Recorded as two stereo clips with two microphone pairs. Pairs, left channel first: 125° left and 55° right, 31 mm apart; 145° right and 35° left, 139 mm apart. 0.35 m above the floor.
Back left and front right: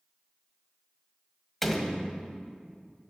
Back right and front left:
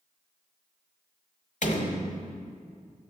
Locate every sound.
1.6 s a door slam: 155° right, 1.2 m